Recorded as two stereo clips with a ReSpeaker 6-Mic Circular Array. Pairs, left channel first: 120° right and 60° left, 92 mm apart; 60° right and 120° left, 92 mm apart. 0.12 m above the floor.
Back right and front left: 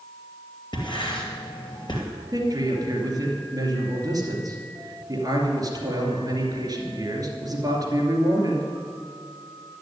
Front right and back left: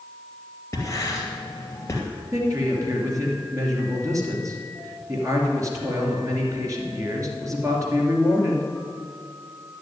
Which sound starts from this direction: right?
Writing, at 0.7 s.